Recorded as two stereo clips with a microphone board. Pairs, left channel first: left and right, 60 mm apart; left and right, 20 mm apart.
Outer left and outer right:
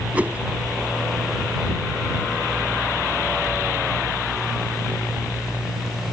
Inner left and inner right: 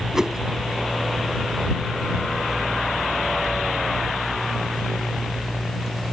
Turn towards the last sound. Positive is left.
turn(degrees=-25)  # may be behind; listen again after turning